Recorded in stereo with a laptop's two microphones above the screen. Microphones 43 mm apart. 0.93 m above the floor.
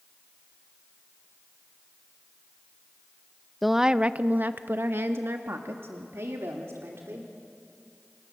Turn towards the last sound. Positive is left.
turn(degrees=-80)